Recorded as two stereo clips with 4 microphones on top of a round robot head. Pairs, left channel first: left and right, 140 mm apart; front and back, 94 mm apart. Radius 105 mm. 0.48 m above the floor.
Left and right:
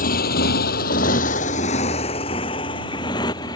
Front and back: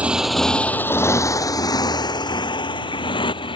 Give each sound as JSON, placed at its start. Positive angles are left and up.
{"t": 0.0, "sound": "a motorcycle", "azimuth_deg": 100}